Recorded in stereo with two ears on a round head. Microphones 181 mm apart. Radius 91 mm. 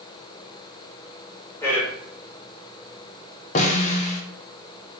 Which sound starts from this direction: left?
A snare drum, at 3.5 s.